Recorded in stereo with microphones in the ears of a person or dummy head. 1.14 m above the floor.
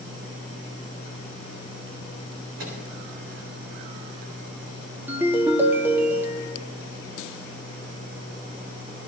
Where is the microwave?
70° right (ahead or behind), 7.5 m.